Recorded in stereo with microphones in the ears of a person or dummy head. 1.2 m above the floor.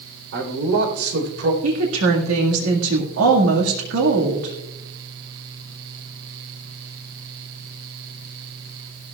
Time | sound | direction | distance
0.3 | a man speaking | 80° right | 3.5 m
1.6 | a woman speaking | 85° right | 1.9 m